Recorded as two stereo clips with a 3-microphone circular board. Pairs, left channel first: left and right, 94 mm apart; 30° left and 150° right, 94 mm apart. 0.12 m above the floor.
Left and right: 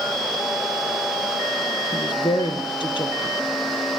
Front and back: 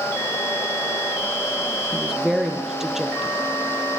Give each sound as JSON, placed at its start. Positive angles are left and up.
{"t": 1.9, "sound": "a woman speaking", "azimuth_deg": 125, "distance_m": 3.0}